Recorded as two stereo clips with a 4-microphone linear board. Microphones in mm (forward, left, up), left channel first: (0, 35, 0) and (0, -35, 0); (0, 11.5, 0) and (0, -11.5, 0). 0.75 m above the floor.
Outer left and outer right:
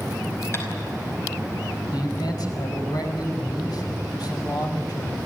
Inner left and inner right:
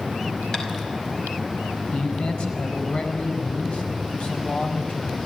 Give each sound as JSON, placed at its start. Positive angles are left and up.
{"t": 0.5, "sound": "tapping", "side_deg": 35, "distance_m": 5.0}
{"t": 1.9, "sound": "a man speaking", "side_deg": 65, "distance_m": 5.0}